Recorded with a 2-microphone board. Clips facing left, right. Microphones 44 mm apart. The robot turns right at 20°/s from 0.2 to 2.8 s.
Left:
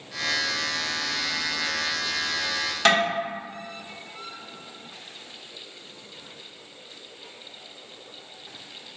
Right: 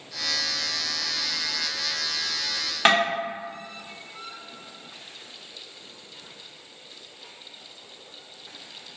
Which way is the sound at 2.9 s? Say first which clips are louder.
Right 1 dB; 25° right (ahead or behind).